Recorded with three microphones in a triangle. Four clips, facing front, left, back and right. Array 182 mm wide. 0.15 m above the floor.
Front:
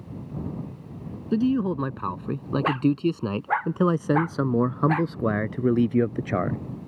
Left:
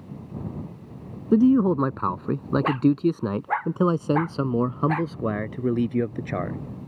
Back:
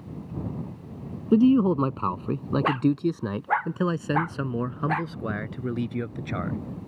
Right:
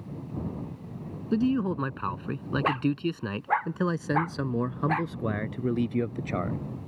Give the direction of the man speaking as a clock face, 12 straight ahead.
8 o'clock.